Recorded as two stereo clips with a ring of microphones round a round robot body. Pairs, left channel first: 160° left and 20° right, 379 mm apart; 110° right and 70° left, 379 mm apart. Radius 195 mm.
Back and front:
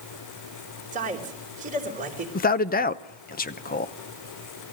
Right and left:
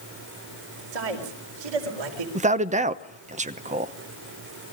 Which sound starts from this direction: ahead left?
A man speaking, at 0.9 s.